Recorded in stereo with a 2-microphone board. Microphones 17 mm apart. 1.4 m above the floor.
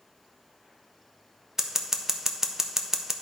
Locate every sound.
1.6 s scissors: 25° right (ahead or behind), 0.6 m